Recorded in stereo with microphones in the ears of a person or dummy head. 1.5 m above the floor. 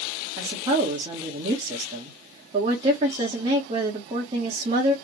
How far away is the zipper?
No zipper in this recording.